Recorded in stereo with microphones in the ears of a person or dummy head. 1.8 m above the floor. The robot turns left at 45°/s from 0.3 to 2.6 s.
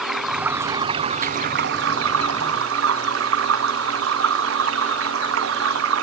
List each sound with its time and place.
0.0 s running water: 5° left; by 6.0 s 100° right